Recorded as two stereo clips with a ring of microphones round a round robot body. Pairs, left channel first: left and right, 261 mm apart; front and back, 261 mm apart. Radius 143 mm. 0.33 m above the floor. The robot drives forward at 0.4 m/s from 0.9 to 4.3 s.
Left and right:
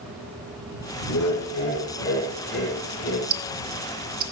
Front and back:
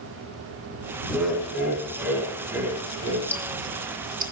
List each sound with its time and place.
1.1 s laughter: 90° left, 3 m; by 3.2 s 105° left, 3 m
3.3 s ticking: 80° right, 0.6 m; by 4.3 s 135° right, 0.7 m